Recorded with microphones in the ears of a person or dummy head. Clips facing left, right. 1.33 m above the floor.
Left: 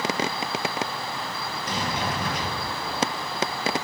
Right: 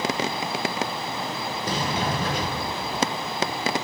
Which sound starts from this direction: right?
A sliding door, at 1.6 s.